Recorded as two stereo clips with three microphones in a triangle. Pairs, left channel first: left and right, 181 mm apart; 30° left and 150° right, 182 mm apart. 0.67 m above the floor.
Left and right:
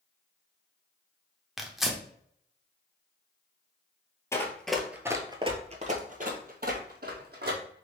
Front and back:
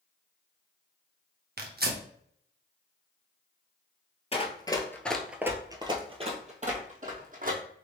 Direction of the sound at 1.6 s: Straight behind.